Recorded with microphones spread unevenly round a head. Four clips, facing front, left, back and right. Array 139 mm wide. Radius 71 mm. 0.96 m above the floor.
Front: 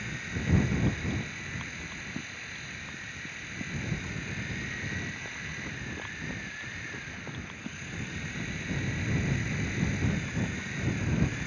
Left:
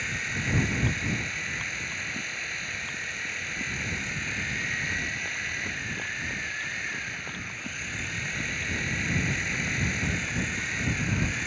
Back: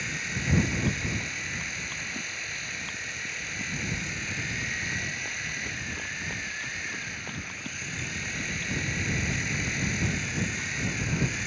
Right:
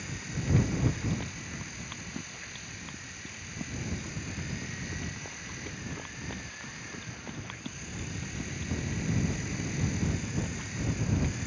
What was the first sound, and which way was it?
A machine running, 130° left.